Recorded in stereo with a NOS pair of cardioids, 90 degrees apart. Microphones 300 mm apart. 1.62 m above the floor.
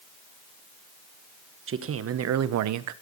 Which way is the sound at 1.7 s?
45° right.